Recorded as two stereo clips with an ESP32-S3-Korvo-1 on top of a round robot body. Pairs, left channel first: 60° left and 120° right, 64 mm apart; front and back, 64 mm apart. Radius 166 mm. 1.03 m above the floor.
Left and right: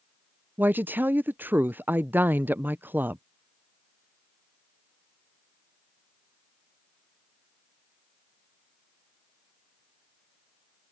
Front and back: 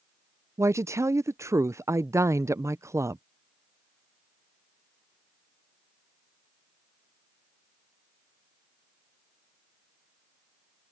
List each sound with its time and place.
0.6 s a woman speaking: 170° right